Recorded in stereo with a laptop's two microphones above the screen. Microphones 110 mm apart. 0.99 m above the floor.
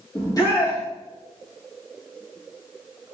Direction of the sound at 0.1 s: 30° left (ahead or behind).